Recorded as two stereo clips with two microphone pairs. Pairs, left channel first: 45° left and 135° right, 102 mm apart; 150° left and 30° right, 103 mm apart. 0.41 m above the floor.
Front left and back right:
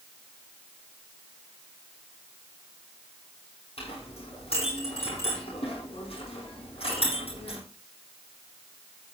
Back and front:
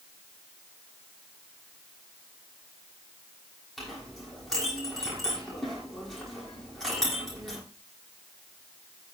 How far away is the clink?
About 9 m.